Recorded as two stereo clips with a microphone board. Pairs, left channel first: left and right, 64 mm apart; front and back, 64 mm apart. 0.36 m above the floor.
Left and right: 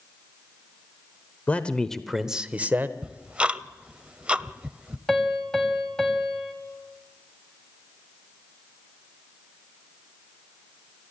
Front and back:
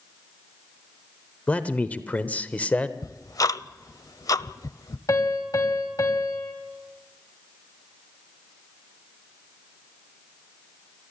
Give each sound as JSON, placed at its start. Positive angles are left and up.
{"t": 1.5, "sound": "a man speaking", "azimuth_deg": 50, "distance_m": 1.1}
{"t": 3.0, "sound": "ticking", "azimuth_deg": -20, "distance_m": 0.5}
{"t": 5.1, "sound": "a piano", "azimuth_deg": 10, "distance_m": 2.5}